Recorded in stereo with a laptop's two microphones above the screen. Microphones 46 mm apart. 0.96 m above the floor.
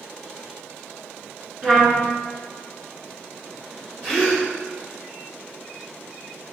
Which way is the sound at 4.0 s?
60° right (ahead or behind).